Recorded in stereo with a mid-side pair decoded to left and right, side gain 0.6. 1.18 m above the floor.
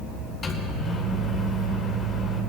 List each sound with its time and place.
0.4 s a microwave: 40° left, 3 m